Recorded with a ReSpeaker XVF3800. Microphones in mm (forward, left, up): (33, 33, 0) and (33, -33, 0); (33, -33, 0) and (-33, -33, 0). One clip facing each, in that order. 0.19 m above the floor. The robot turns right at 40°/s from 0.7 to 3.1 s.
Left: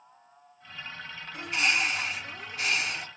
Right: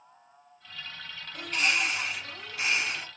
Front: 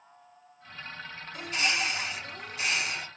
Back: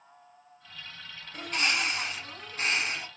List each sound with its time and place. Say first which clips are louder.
1.3 s a bird: left 1 dB, back 1 dB; 160° left, 1.3 m; by 3.1 s 130° right, 1.3 m